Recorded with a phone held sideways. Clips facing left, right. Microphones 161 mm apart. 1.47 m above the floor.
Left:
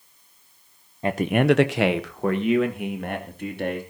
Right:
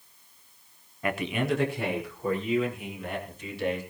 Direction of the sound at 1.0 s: 25° left (ahead or behind).